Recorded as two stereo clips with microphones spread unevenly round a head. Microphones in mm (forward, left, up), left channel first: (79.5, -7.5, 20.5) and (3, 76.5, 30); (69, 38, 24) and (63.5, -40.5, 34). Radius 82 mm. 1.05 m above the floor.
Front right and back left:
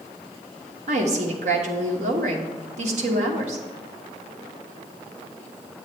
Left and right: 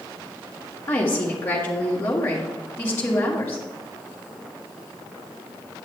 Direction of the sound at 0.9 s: 150° left.